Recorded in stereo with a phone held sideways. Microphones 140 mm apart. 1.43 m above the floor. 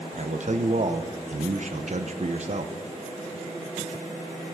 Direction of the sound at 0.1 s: 55° right (ahead or behind).